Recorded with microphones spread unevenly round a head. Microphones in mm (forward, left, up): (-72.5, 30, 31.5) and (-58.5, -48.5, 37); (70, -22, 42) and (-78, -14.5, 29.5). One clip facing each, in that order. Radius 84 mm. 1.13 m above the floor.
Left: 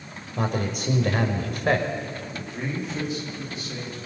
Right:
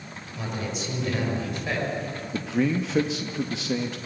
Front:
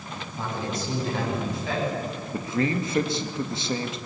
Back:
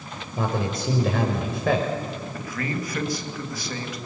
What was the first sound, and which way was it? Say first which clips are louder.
A man speaking: left 5 dB, back 5 dB; 140° left.